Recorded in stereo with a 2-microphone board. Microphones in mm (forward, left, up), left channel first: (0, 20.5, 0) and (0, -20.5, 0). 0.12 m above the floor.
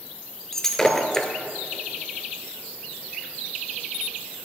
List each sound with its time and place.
0.5 s breaking glass: 10° left (ahead or behind), 0.8 m